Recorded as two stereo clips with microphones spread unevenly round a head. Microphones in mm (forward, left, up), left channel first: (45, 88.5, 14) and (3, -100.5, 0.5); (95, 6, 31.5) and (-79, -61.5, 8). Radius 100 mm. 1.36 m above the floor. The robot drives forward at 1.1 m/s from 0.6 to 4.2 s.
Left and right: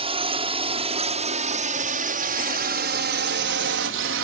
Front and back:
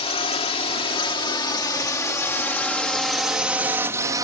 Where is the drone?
40° right; by 4.2 s 85° right.